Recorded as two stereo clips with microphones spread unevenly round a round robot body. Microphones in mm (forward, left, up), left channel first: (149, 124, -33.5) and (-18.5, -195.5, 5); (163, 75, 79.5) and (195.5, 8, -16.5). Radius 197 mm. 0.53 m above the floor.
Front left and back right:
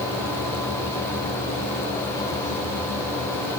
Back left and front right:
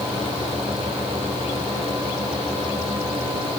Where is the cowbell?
No cowbell in this recording.